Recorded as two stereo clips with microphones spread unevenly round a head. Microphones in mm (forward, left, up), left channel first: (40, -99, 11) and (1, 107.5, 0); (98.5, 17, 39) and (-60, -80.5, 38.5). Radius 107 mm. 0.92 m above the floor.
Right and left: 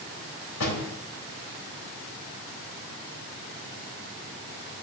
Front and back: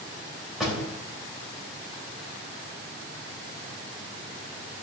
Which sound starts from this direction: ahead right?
A door slam, at 0.6 s.